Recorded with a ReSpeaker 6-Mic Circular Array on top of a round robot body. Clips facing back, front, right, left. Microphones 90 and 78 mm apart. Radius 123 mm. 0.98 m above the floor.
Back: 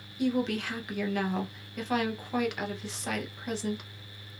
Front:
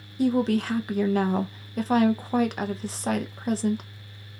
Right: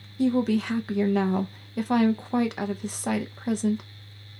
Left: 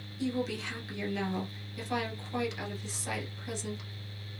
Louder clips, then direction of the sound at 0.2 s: Front 6 dB, right 10 dB; 55° right.